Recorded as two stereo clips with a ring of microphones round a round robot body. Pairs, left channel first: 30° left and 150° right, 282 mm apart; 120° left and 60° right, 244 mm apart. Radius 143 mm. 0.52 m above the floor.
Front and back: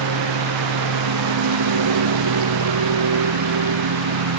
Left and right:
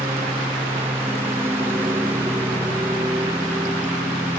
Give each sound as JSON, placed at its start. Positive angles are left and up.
{"t": 0.0, "sound": "a lawn mower", "azimuth_deg": -145}